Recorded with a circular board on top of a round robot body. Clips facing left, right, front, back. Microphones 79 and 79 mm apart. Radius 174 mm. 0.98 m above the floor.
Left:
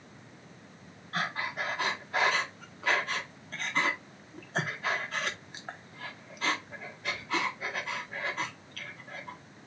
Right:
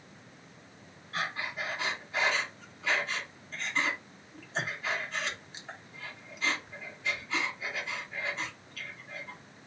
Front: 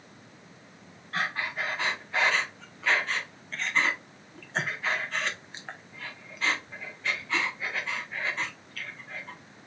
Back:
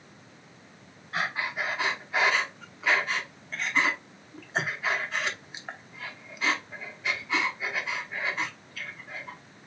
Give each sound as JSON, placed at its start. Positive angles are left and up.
{"t": 1.1, "sound": "breathing", "azimuth_deg": 105, "distance_m": 1.5}